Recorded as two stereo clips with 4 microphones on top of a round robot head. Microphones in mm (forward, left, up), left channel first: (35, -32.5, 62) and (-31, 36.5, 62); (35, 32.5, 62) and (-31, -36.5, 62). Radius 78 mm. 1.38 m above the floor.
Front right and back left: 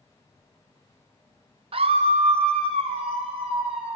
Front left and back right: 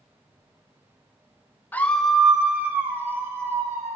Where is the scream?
115° left, 0.6 m; by 4.0 s 165° left, 1.9 m.